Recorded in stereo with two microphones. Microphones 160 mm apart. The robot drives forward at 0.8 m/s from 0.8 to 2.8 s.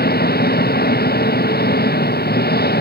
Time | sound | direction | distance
0.0 | an engine running | 80° left | ?